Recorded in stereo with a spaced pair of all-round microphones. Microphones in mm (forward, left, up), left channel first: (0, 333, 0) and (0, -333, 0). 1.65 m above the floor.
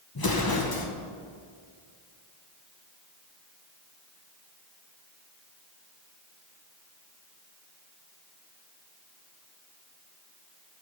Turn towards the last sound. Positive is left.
turn(degrees=35)  # may be behind; listen again after turning